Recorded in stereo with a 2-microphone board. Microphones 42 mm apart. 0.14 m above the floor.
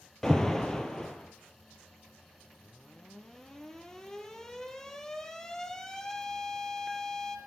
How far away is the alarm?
About 2.5 m.